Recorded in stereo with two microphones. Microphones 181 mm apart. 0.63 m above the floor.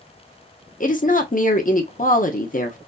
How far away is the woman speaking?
About 0.8 m.